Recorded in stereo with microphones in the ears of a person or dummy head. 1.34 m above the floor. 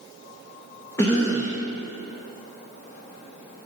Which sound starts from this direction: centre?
A cough, at 1.0 s.